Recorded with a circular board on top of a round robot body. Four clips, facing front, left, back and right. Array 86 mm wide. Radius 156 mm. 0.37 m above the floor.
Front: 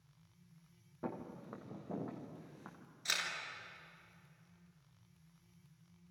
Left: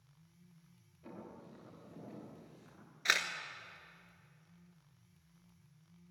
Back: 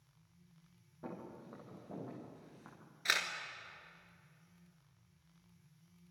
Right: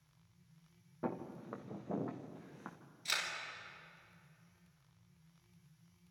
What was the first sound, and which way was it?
Footsteps, 70° right.